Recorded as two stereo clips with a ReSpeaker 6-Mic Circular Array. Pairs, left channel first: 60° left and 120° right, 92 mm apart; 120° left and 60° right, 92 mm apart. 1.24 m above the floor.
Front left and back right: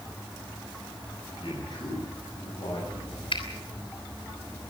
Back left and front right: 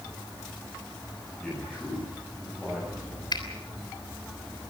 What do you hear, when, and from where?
1.4 s a man speaking: 40° left, 7.5 m; by 3.2 s 35° left, 7 m
3.3 s a finger snap: 80° left, 3 m